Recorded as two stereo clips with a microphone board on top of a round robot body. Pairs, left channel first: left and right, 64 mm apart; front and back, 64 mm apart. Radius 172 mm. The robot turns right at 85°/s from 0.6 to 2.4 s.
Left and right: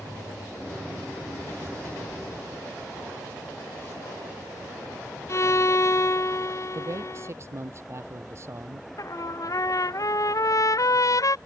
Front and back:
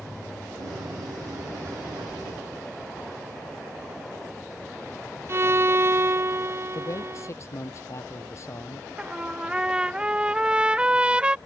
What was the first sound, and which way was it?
A violin, 130° left.